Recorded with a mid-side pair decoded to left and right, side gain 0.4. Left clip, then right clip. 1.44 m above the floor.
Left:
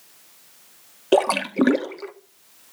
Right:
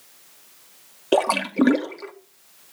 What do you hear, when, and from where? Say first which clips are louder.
1.1 s a splash: left 1 dB; 10° left, 1.5 m